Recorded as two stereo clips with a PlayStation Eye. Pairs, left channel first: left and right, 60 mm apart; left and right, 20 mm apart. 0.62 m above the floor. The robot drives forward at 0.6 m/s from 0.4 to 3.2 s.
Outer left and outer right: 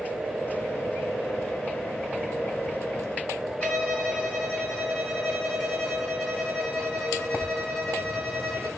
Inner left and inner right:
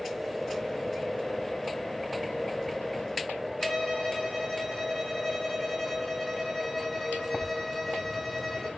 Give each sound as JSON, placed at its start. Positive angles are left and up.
{"t": 3.6, "sound": "a violin", "side_deg": 10, "distance_m": 3.5}